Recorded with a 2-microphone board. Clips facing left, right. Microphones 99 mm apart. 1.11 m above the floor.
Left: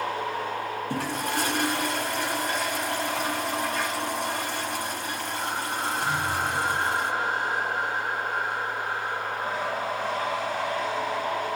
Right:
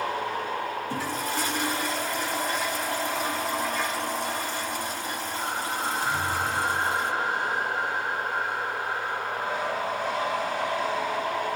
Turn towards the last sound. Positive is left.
turn(degrees=65)  # may be behind; listen again after turning